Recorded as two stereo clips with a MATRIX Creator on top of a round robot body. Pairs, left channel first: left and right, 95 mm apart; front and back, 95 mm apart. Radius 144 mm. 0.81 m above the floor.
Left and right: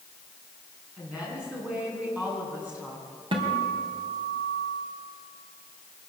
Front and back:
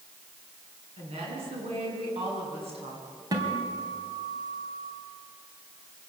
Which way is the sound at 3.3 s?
125° right.